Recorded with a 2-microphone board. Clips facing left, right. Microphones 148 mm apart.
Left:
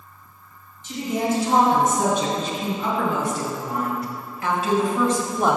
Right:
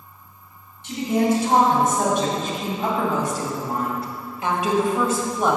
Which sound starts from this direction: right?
A woman speaking, at 0.8 s.